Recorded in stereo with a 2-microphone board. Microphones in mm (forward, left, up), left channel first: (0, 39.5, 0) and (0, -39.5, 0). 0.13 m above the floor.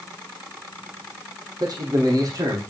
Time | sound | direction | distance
1.6 | a man speaking | 55° right (ahead or behind) | 5 m